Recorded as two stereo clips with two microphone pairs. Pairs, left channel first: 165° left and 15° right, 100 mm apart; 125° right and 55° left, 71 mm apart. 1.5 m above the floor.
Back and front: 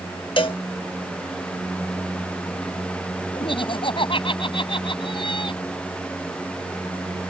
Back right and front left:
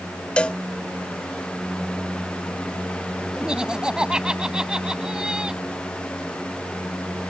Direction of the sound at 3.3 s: 130° left.